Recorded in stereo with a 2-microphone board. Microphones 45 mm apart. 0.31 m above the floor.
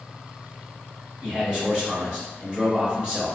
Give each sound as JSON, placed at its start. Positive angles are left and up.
{"t": 1.2, "sound": "a man speaking", "side_deg": -25, "distance_m": 1.5}